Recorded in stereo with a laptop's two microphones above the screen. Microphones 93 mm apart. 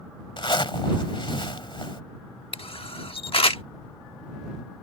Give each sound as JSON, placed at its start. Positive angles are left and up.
{"t": 0.4, "sound": "a zipper", "side_deg": 55}
{"t": 2.5, "sound": "a camera shutter", "side_deg": 70}